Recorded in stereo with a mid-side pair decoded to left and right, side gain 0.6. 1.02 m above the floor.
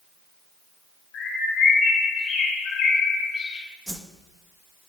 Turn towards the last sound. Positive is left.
turn(degrees=-5)